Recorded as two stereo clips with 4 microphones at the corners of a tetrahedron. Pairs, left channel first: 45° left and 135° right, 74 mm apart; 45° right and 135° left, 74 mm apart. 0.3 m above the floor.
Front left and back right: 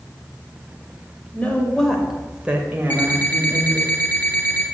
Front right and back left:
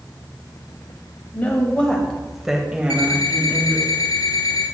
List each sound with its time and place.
1.3 s a woman speaking: 10° right, 1.4 m; by 3.9 s 175° right, 2 m
2.9 s an alarm clock: 20° right, 2 m